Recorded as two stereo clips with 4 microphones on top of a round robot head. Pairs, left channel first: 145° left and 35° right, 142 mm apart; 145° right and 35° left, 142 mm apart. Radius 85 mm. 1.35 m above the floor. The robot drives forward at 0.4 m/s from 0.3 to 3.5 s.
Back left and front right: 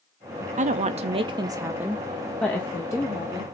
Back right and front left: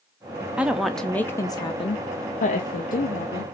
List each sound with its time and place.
0.6 s a woman speaking: 45° right, 0.6 m; by 3.4 s 155° right, 0.9 m